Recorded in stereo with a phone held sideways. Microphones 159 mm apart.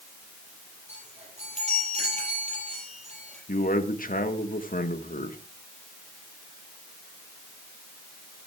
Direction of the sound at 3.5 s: 60° left (ahead or behind).